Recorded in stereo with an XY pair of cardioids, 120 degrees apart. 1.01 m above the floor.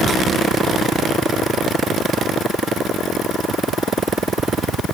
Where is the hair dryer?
No hair dryer in this recording.